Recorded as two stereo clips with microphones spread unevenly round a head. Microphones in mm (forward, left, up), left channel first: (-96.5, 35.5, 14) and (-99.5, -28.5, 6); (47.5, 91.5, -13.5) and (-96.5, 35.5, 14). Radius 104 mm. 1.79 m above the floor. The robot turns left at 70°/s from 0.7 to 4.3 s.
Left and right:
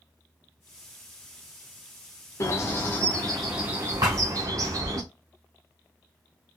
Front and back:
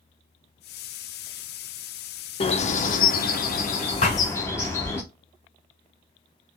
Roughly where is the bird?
Left.